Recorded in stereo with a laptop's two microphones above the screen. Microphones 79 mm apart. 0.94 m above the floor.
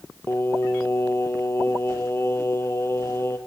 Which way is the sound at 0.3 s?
30° left (ahead or behind).